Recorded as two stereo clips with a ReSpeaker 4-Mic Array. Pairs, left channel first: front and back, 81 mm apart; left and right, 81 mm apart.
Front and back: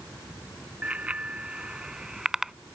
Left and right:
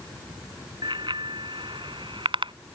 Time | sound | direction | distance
0.8 | a bicycle bell | 105° right | ?